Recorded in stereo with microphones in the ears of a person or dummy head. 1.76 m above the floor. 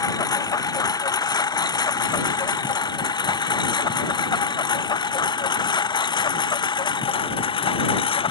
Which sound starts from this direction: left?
A lawn mower, at 0.0 s.